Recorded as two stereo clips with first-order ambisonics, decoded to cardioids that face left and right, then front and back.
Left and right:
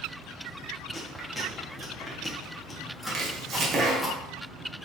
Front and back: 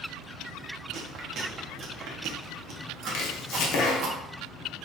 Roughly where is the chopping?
Ahead right.